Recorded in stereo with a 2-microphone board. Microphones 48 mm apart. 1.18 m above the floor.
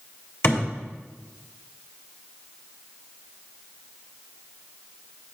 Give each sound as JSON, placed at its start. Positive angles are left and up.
{"t": 0.4, "sound": "a thud", "side_deg": 60, "distance_m": 2.5}